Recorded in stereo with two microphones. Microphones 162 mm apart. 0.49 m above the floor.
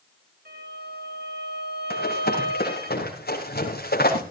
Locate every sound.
0.5 s a violin: 75° right (ahead or behind), 7 m
1.9 s running footsteps: 85° left, 4.5 m; by 4.2 s 75° left (ahead or behind), 4.5 m